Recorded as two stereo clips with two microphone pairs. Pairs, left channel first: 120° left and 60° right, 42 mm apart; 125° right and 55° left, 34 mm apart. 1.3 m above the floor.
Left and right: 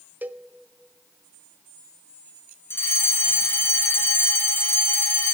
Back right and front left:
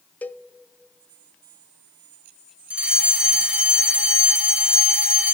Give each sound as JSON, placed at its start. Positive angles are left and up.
{"t": 0.2, "sound": "a cowbell", "azimuth_deg": -100, "distance_m": 0.7}
{"t": 2.7, "sound": "a fire alarm", "azimuth_deg": 105, "distance_m": 3.0}